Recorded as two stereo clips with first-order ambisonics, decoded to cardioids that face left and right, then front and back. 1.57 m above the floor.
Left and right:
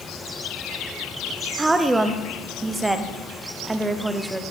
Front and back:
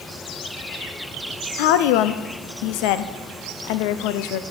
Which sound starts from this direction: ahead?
A woman speaking, at 1.6 s.